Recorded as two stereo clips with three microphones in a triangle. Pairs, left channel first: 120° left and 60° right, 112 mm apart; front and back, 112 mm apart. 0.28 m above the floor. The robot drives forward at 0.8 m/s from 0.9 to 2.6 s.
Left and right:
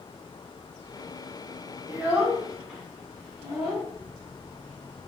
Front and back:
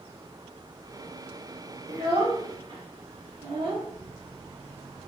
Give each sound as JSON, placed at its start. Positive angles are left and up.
{"t": 1.9, "sound": "a child speaking", "azimuth_deg": -130, "distance_m": 1.3}